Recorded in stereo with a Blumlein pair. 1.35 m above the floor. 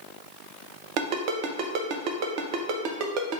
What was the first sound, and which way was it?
A ringtone, 40° right.